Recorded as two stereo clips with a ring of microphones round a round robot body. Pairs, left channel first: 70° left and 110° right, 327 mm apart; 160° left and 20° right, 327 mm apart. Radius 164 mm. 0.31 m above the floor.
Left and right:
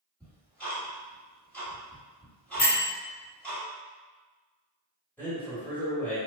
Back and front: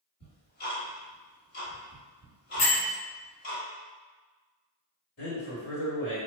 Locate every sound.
0.2 s ticking: 150° left, 1.4 m
2.6 s a bell: 130° left, 1.3 m
5.2 s a man speaking: 150° left, 1.5 m